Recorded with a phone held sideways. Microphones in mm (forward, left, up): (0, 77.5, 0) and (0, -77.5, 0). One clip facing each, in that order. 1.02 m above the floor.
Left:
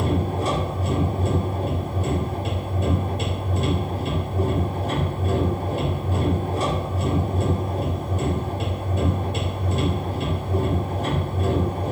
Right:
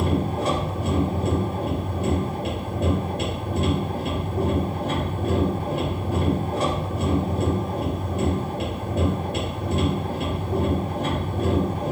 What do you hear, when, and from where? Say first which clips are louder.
0.0 s a machine running: even; 60° right (ahead or behind), 1.5 m